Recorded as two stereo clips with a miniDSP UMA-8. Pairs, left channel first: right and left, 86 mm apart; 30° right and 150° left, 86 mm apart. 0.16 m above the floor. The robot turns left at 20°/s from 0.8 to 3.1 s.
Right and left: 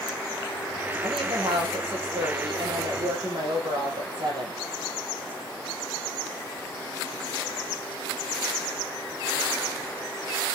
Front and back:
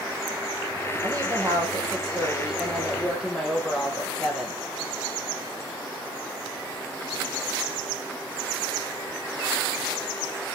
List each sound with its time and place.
1.0 s a woman speaking: 105° left, 6.5 m; by 4.6 s 65° left, 6.5 m